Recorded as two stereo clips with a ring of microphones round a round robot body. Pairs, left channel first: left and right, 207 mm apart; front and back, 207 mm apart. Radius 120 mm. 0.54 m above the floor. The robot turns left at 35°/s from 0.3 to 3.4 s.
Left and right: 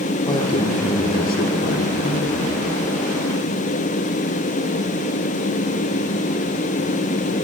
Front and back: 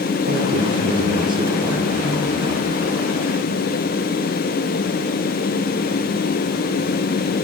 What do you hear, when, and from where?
0.3 s a man speaking: 155° left, 1.6 m; by 2.6 s 70° left, 1.6 m